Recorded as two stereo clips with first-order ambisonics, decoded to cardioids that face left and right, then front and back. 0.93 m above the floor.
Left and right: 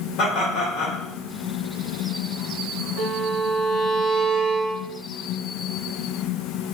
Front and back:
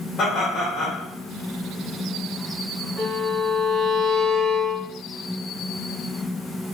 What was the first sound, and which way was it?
Laughter, 65° left.